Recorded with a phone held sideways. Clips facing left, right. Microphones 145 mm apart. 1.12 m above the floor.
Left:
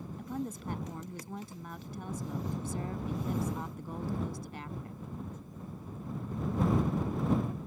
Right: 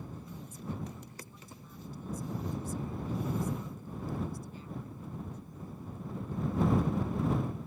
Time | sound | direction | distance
0.2 | a woman speaking | 80° left | ?